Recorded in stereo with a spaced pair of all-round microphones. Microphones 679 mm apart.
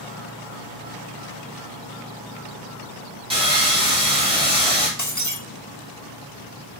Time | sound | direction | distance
3.3 | sawing | 10° right (ahead or behind) | 3 m
5.0 | breaking glass | 25° left (ahead or behind) | 1.3 m